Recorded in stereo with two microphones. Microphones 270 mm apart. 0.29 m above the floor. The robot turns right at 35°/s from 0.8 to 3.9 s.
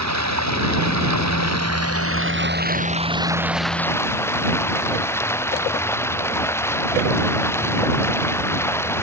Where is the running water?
100° right; by 9.0 s 10° left.